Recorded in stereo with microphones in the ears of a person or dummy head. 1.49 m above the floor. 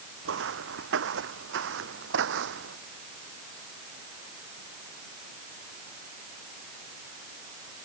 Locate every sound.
0.2 s footsteps: 70° right (ahead or behind); by 2.8 s 65° right (ahead or behind)